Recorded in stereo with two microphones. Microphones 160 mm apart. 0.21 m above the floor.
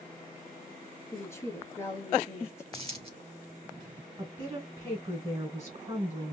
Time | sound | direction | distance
1.1 | a woman speaking | 15° left (ahead or behind) | 1.4 m
2.7 | a dropped coin | 40° right (ahead or behind) | 1.6 m
4.2 | a woman speaking | 30° right (ahead or behind) | 1.8 m